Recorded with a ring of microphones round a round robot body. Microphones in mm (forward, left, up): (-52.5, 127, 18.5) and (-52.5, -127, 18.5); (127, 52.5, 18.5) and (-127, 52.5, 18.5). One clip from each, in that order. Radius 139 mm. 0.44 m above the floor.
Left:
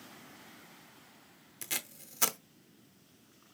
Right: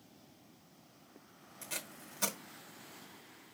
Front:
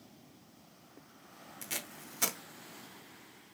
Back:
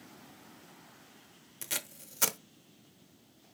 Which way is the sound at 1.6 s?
115° left.